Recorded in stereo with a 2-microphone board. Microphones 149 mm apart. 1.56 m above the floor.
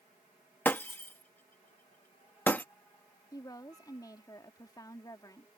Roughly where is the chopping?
I don't hear chopping.